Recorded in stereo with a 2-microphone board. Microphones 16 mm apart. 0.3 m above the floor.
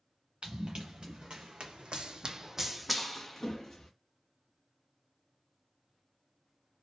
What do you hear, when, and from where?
0.4 s running footsteps: 55° right (ahead or behind), 1.4 m; by 3.9 s 15° left (ahead or behind), 1.1 m